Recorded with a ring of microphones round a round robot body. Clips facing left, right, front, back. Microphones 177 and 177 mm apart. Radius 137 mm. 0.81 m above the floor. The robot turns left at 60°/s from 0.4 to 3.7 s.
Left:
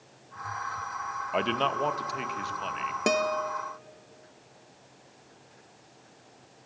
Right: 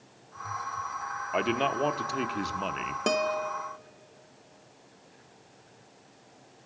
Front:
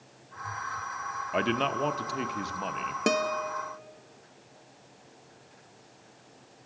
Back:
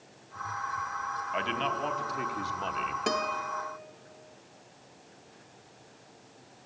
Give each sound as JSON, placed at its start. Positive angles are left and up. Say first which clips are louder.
{"t": 1.3, "sound": "a man speaking", "louder": "right 1 dB, front 6 dB", "azimuth_deg": 0, "distance_m": 0.9}
{"t": 3.1, "sound": "a guitar", "louder": "left 1 dB, front 6 dB", "azimuth_deg": 10, "distance_m": 1.0}